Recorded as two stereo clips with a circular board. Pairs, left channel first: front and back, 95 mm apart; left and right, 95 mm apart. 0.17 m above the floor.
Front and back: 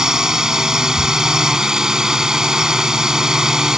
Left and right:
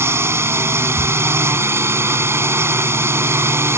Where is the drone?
105° right.